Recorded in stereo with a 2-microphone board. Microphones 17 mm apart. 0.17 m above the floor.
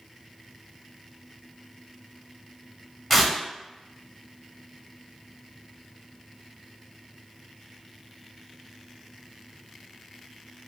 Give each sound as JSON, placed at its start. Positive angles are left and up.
{"t": 3.1, "sound": "tearing paper", "side_deg": 0, "distance_m": 1.9}